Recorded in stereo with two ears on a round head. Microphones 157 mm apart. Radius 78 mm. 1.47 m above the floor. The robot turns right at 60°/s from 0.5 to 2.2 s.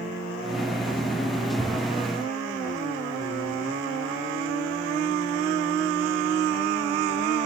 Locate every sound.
1.6 s a thud: 10° right (ahead or behind), 1.4 m; by 1.9 s 25° right (ahead or behind), 1.4 m